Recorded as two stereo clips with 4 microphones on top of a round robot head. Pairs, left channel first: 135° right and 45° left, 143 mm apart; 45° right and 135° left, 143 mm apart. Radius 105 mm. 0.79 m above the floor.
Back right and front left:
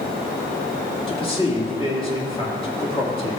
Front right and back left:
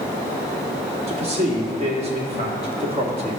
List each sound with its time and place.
1.1 s a man speaking: straight behind, 2 m